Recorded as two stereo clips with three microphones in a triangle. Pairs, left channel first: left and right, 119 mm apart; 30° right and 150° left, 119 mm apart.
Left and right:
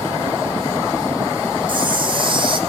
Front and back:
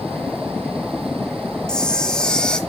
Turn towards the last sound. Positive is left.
turn(degrees=-110)